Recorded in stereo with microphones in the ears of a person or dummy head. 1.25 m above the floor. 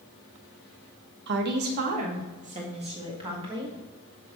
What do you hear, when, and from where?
1.3 s a woman speaking: 65° right (ahead or behind), 1.1 m; by 3.8 s 25° right (ahead or behind), 2 m